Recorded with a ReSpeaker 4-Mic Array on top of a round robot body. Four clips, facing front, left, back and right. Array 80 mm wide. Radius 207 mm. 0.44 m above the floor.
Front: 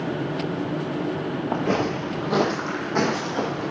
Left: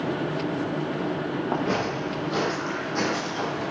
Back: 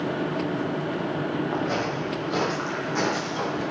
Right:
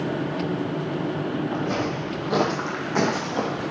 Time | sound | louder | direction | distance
1.5 | footsteps | even, front 3 dB | 40° left | 0.8 m